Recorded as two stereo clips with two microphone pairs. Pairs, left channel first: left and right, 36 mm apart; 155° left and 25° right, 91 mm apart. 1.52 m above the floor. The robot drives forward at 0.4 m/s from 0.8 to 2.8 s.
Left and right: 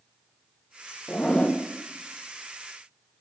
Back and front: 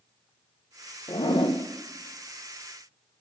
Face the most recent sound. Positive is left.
turn(degrees=155)